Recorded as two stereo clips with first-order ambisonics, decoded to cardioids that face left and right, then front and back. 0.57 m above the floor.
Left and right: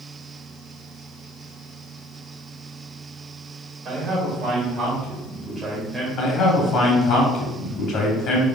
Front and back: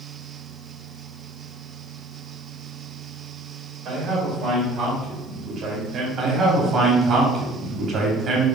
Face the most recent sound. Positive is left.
turn(degrees=120)